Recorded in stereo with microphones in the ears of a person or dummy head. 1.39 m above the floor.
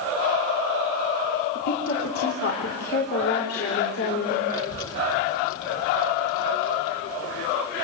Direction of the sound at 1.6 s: 65° left (ahead or behind).